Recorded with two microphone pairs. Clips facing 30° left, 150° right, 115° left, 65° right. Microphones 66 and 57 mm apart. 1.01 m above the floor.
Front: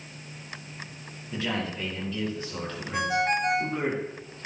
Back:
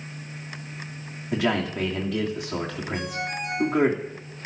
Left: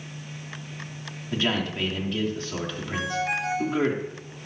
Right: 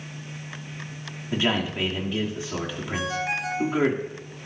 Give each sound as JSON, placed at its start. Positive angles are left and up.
{"t": 1.3, "sound": "a man speaking", "azimuth_deg": -140, "distance_m": 2.5}
{"t": 2.9, "sound": "a ringtone", "azimuth_deg": 25, "distance_m": 4.5}